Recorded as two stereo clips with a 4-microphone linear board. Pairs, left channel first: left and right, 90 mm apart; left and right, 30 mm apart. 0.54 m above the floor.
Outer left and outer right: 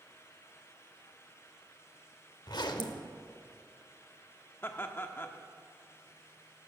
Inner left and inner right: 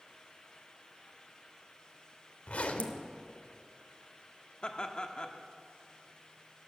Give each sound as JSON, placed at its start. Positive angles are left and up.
{"t": 2.5, "sound": "a zipper", "side_deg": 60, "distance_m": 1.0}
{"t": 4.6, "sound": "laughter", "side_deg": 25, "distance_m": 0.8}